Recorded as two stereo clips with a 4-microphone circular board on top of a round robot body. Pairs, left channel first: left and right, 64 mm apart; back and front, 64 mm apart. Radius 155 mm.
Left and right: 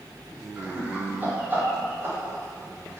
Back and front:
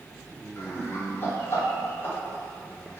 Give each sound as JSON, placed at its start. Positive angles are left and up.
{"t": 0.6, "sound": "laughter", "azimuth_deg": -155, "distance_m": 1.8}